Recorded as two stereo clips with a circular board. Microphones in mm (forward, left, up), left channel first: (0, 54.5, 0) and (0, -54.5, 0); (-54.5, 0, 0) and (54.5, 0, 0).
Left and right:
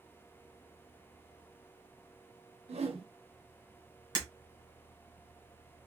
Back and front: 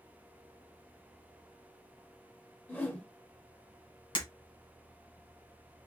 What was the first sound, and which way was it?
A whoosh, 105° right.